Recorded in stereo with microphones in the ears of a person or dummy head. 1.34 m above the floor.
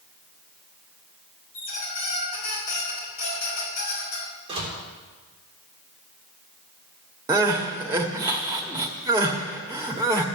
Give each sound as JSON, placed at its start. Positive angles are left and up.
{"t": 1.5, "sound": "a squeak", "side_deg": 55, "distance_m": 5.0}
{"t": 4.5, "sound": "a door slam", "side_deg": -25, "distance_m": 3.5}
{"t": 7.3, "sound": "crying", "side_deg": -15, "distance_m": 1.3}